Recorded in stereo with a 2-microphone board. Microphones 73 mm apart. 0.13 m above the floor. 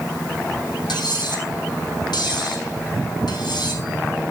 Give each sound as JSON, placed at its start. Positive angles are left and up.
{"t": 0.9, "sound": "cutlery clinking", "side_deg": 75, "distance_m": 4.0}